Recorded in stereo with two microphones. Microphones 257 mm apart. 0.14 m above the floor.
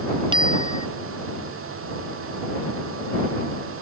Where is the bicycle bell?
20° right (ahead or behind).